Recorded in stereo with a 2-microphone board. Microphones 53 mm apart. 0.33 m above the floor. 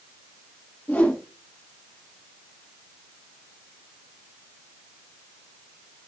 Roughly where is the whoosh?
Left.